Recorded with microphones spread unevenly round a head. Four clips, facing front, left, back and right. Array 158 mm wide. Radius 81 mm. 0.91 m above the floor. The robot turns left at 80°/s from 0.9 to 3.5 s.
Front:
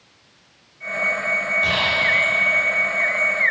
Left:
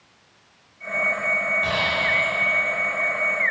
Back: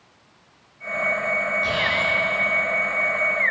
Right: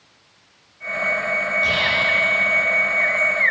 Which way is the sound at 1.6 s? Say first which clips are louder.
Right 2 dB, front 3 dB; 30° left.